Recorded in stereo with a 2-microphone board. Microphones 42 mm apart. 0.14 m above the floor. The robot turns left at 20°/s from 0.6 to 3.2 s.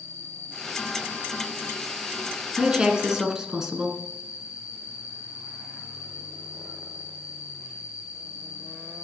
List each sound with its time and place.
0.0 s an insect: 90° right, 1.5 m; by 9.1 s 145° right, 1.5 m
2.6 s a woman speaking: 20° right (ahead or behind), 1.4 m; by 4.0 s 10° right (ahead or behind), 1.4 m